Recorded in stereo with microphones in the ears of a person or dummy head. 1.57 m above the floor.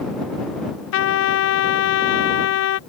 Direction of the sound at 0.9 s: 75° left (ahead or behind).